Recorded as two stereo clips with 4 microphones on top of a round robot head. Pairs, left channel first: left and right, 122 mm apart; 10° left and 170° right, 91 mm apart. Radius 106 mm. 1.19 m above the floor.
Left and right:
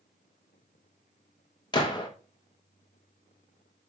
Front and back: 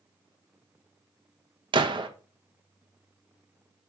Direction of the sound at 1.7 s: 150° left.